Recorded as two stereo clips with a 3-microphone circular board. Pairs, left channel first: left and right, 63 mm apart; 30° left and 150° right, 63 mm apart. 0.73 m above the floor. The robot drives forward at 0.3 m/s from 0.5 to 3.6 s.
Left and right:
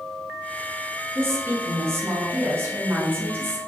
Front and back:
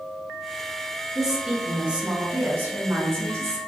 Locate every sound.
1.1 s a woman speaking: 65° right, 0.9 m; by 3.6 s 130° right, 1.0 m